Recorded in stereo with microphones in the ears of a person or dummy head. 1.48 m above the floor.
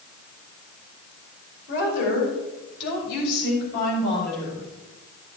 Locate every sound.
1.7 s a woman speaking: 70° left (ahead or behind), 5.5 m; by 4.7 s 60° left (ahead or behind), 8 m